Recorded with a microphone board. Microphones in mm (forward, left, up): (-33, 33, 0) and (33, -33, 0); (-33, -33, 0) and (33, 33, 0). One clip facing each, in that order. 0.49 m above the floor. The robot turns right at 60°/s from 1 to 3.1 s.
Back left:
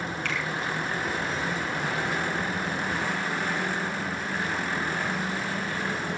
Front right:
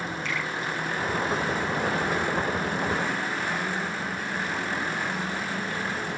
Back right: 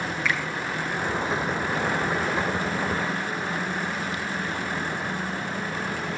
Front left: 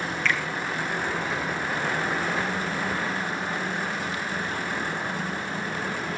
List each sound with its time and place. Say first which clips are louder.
0.2 s a finger snap: even, front left 1 dB; 150° left, 5.5 m